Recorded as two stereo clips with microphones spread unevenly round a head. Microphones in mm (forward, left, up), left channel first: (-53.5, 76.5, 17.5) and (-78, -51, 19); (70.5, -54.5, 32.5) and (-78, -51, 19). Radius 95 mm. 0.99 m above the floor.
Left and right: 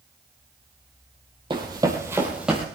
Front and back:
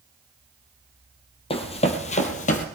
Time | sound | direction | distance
1.5 | running footsteps | 40° right | 1.7 m